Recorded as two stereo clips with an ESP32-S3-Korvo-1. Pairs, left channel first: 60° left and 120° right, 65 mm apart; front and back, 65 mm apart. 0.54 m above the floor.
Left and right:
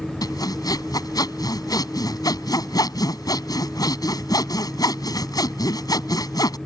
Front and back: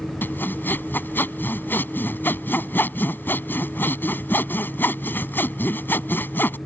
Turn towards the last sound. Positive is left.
turn(degrees=55)